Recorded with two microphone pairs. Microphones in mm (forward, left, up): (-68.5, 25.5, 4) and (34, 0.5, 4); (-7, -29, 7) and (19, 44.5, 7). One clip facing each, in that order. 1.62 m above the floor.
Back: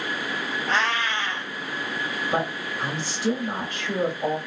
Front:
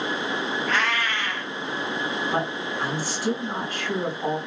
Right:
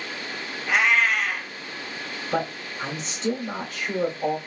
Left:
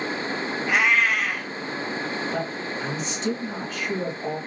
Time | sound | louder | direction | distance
0.7 | a cat meowing | back 3 dB, right 1 dB | 160° left | 0.8 m
2.3 | a man speaking | even, right 1 dB | 130° right | 1.3 m